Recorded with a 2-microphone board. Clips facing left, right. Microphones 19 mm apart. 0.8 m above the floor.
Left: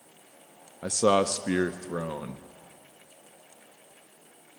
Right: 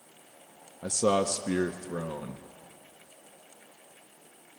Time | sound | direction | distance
0.8 | a man speaking | 30° left (ahead or behind) | 0.6 m